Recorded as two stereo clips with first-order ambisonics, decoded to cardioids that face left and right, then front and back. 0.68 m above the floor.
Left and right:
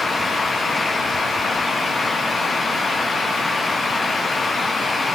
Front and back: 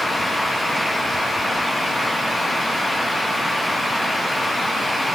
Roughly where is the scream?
I don't hear a scream.